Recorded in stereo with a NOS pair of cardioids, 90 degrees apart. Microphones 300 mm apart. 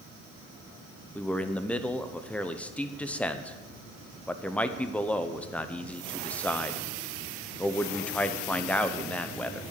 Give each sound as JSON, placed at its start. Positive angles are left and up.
{"t": 1.1, "sound": "a man speaking", "azimuth_deg": 5, "distance_m": 1.0}